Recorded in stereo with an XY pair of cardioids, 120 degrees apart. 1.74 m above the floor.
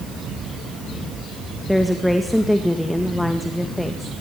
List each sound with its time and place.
1.7 s a woman speaking: 5° left, 1.9 m